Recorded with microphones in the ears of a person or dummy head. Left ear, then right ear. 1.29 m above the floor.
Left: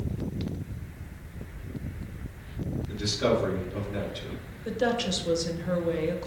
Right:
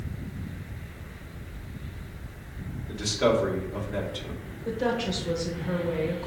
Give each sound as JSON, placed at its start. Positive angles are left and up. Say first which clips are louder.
{"t": 2.9, "sound": "a man speaking", "louder": "right 2 dB", "side_deg": -40, "distance_m": 2.5}
{"t": 4.7, "sound": "a woman speaking", "louder": "left 1 dB", "side_deg": 15, "distance_m": 1.4}